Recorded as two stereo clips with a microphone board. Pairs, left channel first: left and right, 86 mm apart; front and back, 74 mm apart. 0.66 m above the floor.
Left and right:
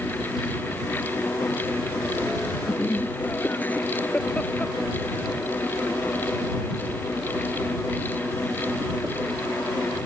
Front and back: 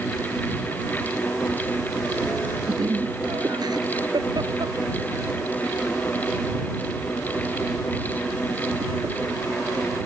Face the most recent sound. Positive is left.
turn(degrees=-150)